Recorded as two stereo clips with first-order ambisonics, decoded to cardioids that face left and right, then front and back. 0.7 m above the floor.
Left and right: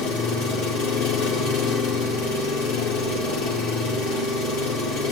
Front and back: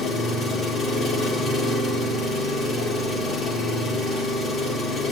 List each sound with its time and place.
0.0 s an engine running: 70° left, 1.9 m